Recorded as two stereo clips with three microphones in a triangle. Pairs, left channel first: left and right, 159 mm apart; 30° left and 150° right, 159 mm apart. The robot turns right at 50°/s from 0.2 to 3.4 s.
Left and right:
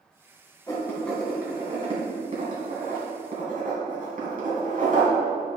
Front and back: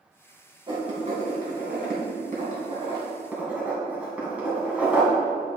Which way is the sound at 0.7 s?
155° left.